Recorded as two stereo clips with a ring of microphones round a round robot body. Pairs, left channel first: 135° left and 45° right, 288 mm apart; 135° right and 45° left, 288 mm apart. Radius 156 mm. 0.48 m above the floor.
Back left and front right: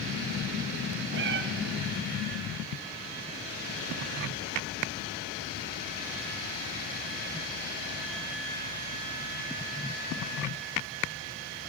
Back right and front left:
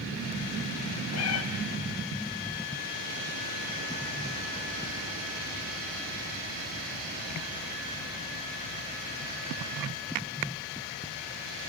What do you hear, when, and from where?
1.1 s a cat meowing: 95° right, 2 m